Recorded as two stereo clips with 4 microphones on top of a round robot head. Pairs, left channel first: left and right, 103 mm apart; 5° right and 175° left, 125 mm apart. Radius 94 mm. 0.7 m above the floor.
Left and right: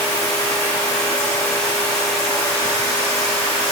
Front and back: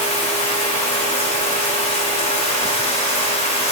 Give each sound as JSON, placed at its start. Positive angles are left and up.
{"t": 0.0, "sound": "running water", "azimuth_deg": 30, "distance_m": 2.5}